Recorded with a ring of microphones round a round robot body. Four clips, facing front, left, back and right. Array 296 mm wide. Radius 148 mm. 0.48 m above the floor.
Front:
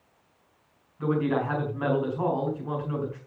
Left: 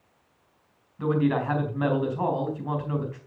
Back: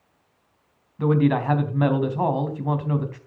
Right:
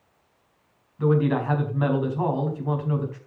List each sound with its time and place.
1.0 s a man speaking: 175° left, 4 m